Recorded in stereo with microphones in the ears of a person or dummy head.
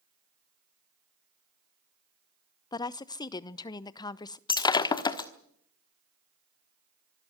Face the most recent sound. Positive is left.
turn(degrees=25)  # may be behind; listen again after turning